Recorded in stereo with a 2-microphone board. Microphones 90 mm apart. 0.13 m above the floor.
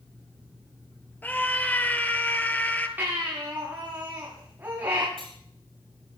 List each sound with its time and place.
1.2 s a scream: 20° left (ahead or behind), 2.5 m
3.0 s a baby crying: 20° right (ahead or behind), 8 m
5.2 s cutlery clinking: 85° right, 6.5 m